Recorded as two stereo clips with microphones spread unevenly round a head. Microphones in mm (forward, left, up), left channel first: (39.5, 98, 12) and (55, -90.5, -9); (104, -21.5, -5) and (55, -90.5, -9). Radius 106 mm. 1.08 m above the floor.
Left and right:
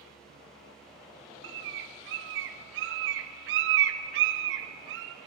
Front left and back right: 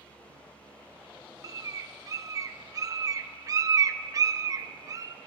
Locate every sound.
1.4 s a bird: 75° right, 0.5 m